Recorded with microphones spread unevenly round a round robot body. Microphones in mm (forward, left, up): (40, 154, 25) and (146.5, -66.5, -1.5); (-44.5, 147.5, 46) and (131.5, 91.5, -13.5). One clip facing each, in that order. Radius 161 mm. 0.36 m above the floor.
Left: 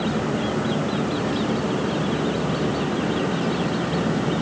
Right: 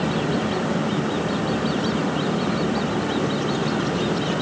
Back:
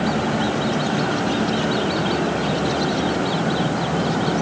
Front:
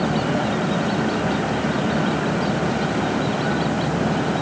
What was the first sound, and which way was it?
Only background noise.